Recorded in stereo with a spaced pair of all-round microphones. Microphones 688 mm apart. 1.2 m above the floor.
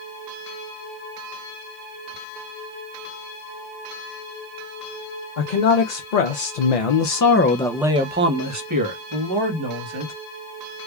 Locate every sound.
5.4 s a man speaking: 85° left, 1.2 m; by 10.1 s 40° right (ahead or behind), 1.7 m